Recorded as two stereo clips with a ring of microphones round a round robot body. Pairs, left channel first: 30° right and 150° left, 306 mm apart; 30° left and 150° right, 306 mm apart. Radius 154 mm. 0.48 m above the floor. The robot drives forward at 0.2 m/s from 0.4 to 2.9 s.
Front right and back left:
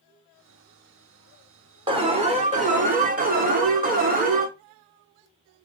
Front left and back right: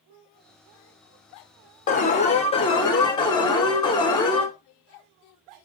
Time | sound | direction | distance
1.9 | an alarm | 85° left | 1.1 m